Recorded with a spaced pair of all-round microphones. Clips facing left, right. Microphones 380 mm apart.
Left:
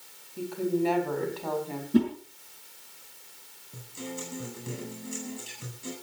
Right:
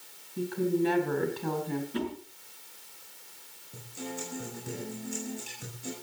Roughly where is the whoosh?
Left.